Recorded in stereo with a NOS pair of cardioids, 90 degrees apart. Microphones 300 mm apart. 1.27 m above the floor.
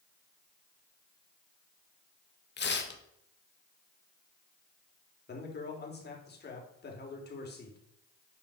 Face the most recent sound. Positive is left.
turn(degrees=35)